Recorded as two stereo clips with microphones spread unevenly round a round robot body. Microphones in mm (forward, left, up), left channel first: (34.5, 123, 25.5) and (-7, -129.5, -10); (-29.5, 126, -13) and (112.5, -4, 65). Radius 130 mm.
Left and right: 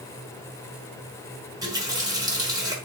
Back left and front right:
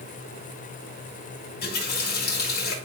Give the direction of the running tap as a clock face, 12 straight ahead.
6 o'clock.